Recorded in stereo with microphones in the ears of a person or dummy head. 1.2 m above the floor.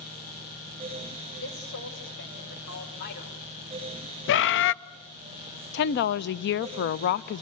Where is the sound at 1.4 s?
75° left (ahead or behind), 6.5 m; by 3.4 s 50° left (ahead or behind), 5 m.